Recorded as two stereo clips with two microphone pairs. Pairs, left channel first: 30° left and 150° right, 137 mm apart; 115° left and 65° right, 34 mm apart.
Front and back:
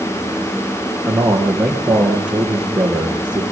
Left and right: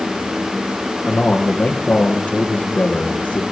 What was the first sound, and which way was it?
A man speaking, 130° left.